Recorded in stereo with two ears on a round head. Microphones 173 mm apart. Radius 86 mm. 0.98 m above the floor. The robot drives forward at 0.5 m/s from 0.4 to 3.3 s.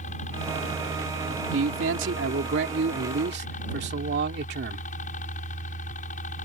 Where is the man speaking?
75° right (ahead or behind); by 4.9 s 60° right (ahead or behind).